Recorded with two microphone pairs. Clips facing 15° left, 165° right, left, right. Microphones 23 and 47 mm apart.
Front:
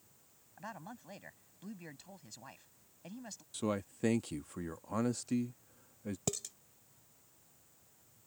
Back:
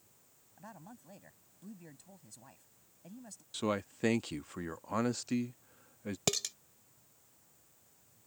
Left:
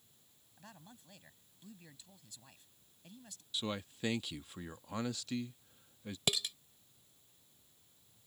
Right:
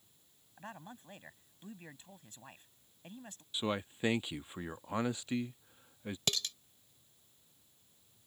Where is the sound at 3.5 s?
125° right.